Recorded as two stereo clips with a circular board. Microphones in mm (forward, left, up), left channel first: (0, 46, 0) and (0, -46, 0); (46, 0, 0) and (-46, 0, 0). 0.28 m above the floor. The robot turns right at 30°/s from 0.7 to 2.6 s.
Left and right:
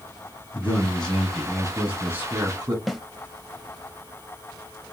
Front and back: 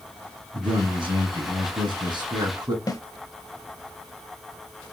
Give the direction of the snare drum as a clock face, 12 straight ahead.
12 o'clock.